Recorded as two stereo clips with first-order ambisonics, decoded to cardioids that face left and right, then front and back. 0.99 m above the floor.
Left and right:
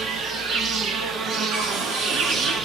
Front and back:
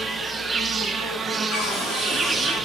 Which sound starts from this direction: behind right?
An insect, at 0.0 s.